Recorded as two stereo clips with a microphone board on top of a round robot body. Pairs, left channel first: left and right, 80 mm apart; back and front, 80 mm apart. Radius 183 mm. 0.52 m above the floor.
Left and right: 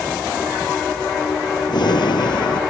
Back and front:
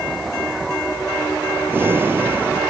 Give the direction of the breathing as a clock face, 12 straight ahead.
10 o'clock.